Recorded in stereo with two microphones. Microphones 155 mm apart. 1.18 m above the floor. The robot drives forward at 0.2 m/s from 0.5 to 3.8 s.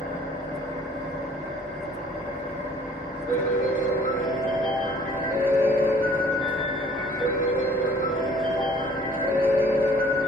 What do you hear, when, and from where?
0.0 s an engine running: 50° left (ahead or behind), 1.3 m; by 10.3 s 70° left (ahead or behind), 1.1 m
3.3 s a piano: 45° left (ahead or behind), 1.4 m